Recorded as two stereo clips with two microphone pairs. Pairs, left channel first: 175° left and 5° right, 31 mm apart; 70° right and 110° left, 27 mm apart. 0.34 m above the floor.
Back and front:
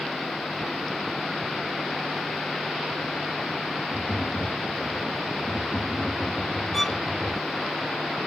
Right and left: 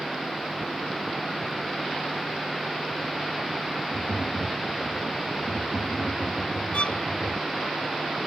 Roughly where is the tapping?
Right.